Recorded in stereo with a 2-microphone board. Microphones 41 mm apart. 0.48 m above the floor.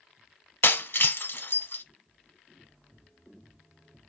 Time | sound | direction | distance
0.6 | breaking glass | 60° left (ahead or behind) | 0.6 m